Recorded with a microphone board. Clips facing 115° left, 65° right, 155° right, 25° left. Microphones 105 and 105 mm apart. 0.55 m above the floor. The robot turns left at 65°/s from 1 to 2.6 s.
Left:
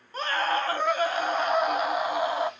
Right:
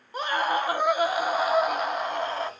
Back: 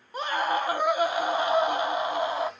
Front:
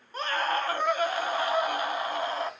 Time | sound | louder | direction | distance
0.1 | a scream | right 1 dB, back 2 dB | 110° right | 0.6 m